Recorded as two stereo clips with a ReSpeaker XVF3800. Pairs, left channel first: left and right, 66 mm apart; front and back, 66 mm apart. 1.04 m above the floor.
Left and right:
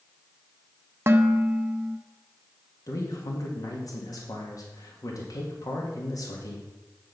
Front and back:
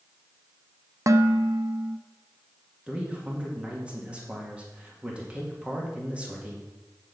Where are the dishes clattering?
140° right, 0.6 m.